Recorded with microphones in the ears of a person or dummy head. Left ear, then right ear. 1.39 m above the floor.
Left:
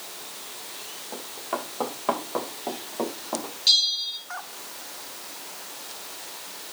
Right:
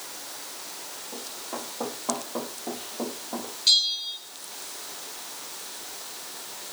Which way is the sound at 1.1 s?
50° left (ahead or behind).